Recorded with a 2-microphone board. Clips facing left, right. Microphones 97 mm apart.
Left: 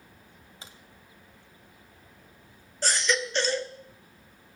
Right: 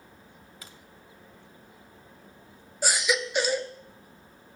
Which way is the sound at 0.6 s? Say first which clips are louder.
Left 1 dB; 25° left (ahead or behind).